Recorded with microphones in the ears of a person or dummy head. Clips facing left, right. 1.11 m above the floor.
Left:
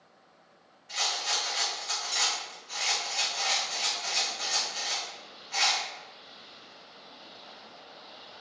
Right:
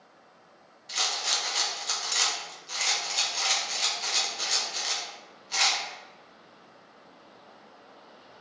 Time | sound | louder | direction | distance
0.9 | a rattle | even | 45° right (ahead or behind) | 0.6 m